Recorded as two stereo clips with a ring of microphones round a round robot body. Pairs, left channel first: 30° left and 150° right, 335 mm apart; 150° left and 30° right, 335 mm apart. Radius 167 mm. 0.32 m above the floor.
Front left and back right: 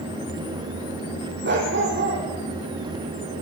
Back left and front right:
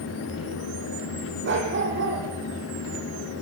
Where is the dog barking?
90° right, 7 m.